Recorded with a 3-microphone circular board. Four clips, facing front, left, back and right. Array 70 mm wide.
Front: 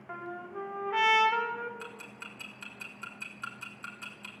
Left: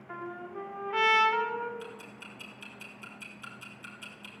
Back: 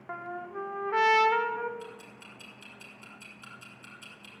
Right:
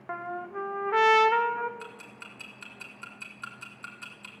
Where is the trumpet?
110° right, 1.7 m.